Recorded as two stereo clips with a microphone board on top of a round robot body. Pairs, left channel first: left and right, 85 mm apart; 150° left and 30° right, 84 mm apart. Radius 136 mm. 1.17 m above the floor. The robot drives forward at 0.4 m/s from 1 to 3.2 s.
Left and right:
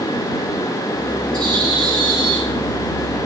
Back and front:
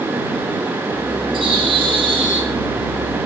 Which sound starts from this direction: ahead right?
A bird, at 1.3 s.